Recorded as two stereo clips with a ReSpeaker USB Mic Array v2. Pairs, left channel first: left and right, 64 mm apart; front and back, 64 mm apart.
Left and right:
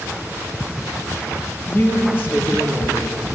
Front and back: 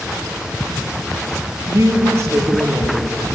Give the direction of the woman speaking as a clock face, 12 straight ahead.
7 o'clock.